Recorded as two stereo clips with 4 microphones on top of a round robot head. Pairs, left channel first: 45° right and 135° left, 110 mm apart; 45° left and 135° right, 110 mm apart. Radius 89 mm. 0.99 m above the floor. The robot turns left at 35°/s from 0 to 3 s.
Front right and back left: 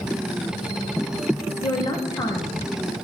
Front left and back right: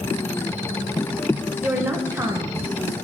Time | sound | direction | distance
1.6 | a woman speaking | 60° right | 0.9 m